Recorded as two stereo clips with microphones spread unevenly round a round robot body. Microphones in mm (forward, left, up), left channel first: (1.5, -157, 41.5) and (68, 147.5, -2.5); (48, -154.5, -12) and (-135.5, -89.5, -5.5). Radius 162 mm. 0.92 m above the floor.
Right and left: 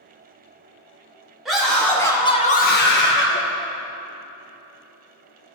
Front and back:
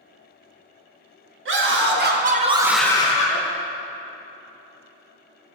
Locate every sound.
1.4 s a scream: 165° left, 2 m; by 3.4 s 45° right, 1.4 m